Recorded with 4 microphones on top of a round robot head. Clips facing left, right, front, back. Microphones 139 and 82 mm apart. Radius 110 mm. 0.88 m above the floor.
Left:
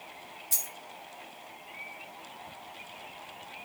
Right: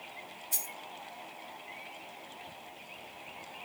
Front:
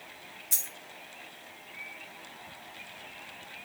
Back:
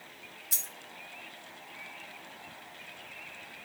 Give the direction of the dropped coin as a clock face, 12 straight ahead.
9 o'clock.